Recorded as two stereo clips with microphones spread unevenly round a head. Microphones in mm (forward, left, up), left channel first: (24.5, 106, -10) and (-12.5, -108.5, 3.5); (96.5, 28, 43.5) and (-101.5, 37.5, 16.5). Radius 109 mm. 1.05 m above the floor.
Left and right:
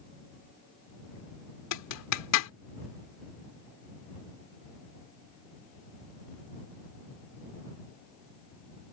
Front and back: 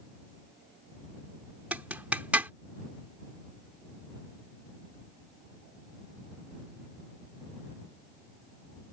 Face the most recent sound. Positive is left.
turn(degrees=95)